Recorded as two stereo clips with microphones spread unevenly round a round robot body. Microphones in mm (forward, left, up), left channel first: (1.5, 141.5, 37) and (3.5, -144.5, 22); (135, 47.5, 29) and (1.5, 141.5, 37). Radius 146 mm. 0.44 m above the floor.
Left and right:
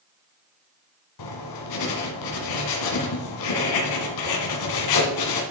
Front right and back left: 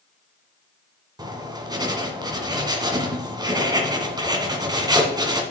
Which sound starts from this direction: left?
Writing, at 1.2 s.